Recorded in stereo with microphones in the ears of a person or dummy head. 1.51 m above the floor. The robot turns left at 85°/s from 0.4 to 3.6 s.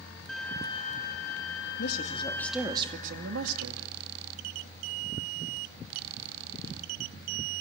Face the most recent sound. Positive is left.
turn(degrees=-90)